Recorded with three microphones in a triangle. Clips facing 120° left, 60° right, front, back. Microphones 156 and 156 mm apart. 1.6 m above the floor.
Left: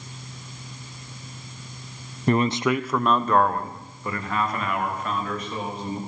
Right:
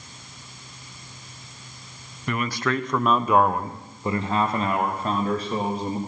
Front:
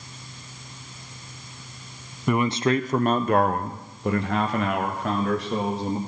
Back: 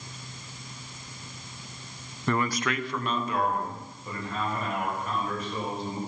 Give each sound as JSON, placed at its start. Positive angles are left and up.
{"t": 2.3, "sound": "a man speaking", "azimuth_deg": 75, "distance_m": 0.5}